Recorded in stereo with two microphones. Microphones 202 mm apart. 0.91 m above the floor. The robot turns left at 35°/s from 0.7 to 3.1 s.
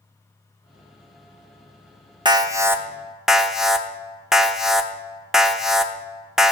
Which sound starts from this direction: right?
An alarm, at 2.2 s.